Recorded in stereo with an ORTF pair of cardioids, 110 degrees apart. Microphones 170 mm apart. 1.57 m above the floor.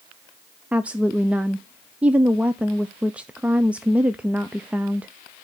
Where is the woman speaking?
5° right, 0.6 m.